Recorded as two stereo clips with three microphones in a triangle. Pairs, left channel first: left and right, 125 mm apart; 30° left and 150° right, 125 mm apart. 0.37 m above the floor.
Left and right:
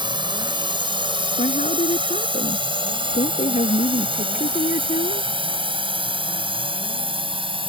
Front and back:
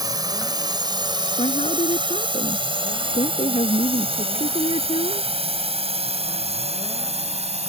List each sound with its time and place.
0.0 s a drone: 110° right; by 7.7 s 130° right
1.4 s a woman speaking: 65° left